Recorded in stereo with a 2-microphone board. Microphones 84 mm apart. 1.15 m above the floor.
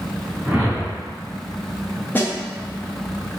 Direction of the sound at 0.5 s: 20° right (ahead or behind).